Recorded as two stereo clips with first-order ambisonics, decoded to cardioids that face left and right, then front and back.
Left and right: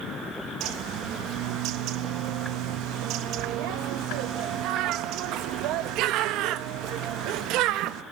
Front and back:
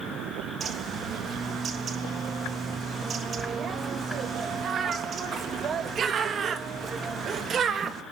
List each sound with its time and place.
0.6 s a bird: 120° right, 1.4 m